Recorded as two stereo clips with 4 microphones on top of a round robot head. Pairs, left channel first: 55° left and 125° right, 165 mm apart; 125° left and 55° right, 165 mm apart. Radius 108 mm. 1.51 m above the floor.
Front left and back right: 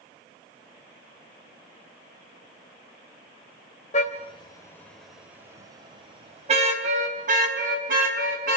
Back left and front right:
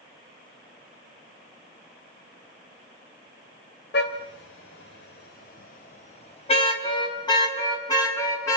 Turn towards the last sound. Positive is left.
turn(degrees=-160)